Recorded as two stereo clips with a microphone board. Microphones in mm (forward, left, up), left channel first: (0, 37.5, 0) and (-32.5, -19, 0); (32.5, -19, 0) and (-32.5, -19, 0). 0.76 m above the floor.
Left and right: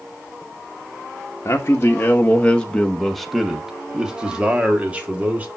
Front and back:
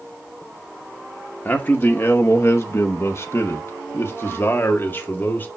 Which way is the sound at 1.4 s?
40° left.